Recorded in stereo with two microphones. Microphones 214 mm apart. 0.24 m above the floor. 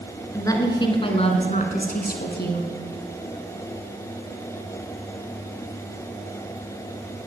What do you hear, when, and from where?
0.3 s a woman speaking: 15° left (ahead or behind), 2.5 m; by 2.7 s 60° left (ahead or behind), 2.5 m